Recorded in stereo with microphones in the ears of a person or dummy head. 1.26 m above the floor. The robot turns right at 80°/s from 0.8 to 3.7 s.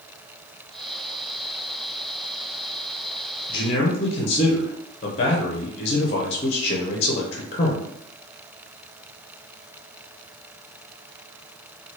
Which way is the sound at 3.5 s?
20° left (ahead or behind).